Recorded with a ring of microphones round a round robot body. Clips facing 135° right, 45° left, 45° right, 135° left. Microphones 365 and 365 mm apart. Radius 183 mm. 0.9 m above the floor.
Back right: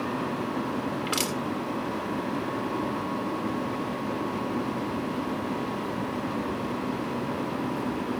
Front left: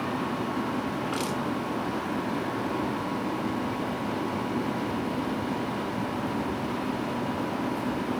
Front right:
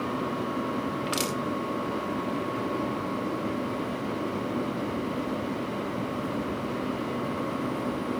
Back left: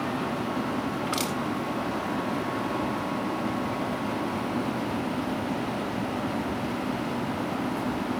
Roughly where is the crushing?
Behind right.